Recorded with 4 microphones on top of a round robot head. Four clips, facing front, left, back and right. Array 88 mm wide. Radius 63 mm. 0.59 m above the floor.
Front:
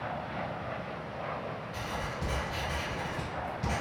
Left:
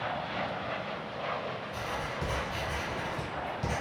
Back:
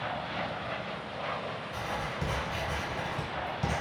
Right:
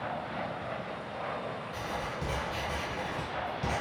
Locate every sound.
1.7 s writing: 175° left, 0.9 m